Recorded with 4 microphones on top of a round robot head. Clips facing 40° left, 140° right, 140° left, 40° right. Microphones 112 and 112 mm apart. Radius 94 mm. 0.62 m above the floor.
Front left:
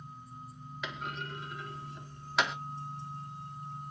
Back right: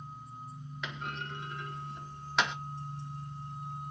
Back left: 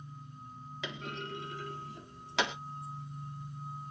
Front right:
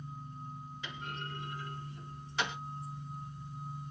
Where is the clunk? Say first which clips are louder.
Even, back left 3 dB; 130° left, 1.0 m.